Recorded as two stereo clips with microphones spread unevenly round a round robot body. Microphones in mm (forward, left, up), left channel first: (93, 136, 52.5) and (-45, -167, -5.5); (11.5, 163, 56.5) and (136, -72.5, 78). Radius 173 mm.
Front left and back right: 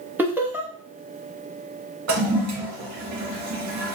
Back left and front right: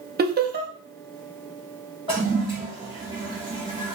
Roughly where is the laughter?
Ahead right.